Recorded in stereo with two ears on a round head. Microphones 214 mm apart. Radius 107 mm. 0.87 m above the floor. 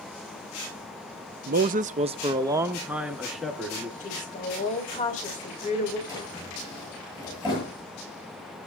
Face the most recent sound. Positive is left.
turn(degrees=15)  # may be behind; listen again after turning